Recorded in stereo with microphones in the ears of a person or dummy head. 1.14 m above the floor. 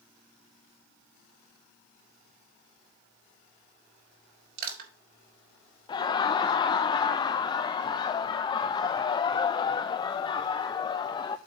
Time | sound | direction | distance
4.6 | crushing | 60° right (ahead or behind) | 5.5 m
5.9 | laughter | 25° left (ahead or behind) | 0.6 m